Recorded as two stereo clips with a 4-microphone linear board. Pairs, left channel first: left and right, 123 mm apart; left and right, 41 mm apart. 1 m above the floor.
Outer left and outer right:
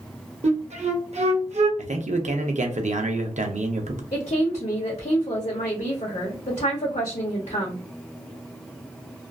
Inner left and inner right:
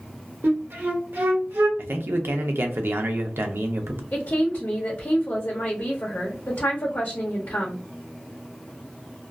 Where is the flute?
65° right (ahead or behind), 0.6 m.